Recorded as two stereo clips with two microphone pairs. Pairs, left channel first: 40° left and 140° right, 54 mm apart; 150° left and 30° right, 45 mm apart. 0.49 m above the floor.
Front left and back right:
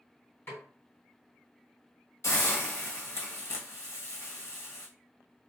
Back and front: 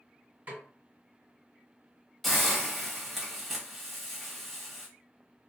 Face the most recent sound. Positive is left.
turn(degrees=65)